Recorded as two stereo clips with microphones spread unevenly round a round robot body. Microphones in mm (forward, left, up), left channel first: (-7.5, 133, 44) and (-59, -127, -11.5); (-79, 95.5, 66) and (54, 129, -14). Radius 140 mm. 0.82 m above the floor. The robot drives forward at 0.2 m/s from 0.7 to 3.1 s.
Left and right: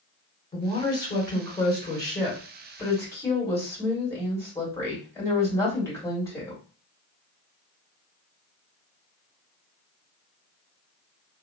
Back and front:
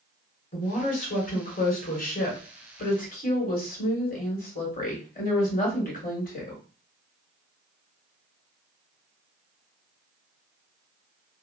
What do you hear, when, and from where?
0.5 s a woman speaking: 160° left, 1.6 m; by 6.6 s 165° left, 2.0 m